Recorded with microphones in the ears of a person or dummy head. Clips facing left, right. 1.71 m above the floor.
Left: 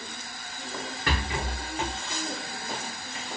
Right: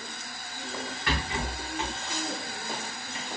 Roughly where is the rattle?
Left.